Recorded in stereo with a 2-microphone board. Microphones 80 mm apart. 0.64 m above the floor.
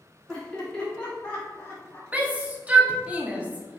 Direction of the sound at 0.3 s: 10° left (ahead or behind).